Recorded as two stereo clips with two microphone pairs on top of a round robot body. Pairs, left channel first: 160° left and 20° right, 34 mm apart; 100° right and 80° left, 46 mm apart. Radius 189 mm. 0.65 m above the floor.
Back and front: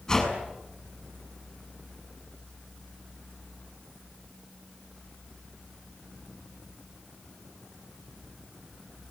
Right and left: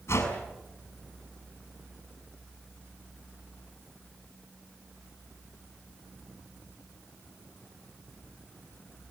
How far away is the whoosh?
About 7.5 m.